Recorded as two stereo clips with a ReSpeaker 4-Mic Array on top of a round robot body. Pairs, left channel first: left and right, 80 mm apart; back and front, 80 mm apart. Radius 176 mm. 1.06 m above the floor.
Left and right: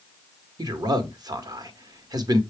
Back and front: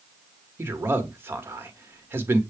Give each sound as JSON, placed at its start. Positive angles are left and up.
{"t": 0.6, "sound": "a man speaking", "azimuth_deg": -60, "distance_m": 1.1}